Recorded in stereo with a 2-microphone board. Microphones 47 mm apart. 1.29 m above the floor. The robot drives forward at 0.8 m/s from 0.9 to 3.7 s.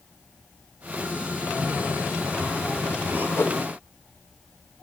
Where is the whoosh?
60° left (ahead or behind), 0.8 m; by 3.6 s 50° left (ahead or behind), 0.9 m.